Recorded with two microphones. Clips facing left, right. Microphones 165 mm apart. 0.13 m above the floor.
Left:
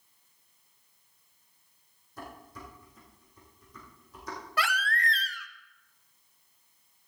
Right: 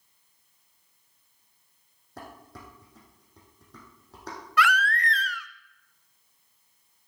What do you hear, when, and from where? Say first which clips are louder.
2.2 s dishes clattering: even; 70° right (ahead or behind), 4.5 m
4.6 s a baby crying: right 7 dB; 30° left (ahead or behind), 0.7 m